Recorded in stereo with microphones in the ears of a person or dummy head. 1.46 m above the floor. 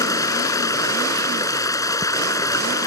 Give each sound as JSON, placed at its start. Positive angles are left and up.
{"t": 0.0, "sound": "running water", "side_deg": 20}